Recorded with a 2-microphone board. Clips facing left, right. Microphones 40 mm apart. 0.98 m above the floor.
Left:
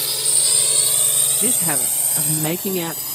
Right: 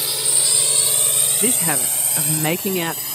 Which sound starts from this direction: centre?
A drone, at 0.0 s.